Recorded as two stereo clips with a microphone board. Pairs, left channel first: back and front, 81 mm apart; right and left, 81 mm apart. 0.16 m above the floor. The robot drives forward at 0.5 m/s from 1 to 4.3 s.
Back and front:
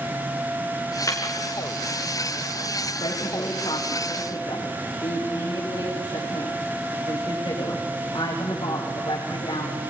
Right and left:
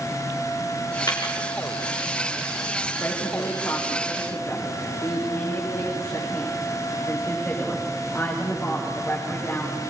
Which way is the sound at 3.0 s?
150° right.